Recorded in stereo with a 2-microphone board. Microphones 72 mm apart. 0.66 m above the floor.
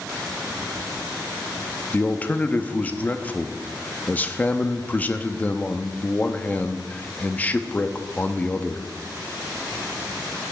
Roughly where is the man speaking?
Left.